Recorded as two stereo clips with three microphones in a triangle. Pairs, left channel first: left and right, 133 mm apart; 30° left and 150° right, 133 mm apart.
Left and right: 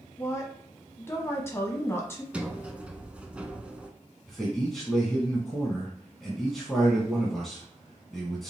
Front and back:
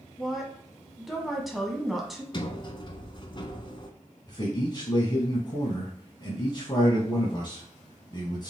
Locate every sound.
0.2 s a woman speaking: 120° left, 1.0 m
2.3 s a sliding door: 10° right, 0.6 m
4.3 s a man speaking: straight ahead, 1.4 m